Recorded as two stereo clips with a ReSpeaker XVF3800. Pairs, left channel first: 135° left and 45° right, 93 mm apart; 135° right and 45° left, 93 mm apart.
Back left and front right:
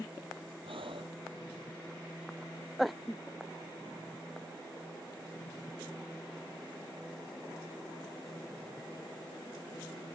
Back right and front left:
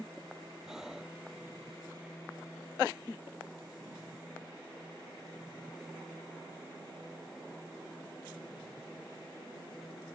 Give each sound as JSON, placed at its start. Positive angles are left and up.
{"t": 0.7, "sound": "breathing", "azimuth_deg": -40}